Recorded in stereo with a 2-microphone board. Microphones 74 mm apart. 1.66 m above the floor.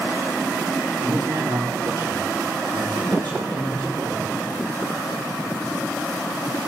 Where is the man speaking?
85° right, 5 m.